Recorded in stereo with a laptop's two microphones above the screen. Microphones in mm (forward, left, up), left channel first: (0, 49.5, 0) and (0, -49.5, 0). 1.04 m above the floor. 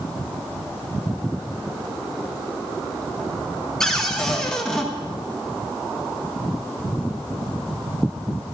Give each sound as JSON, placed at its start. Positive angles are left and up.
{"t": 3.8, "sound": "a cupboard door", "side_deg": 5, "distance_m": 1.5}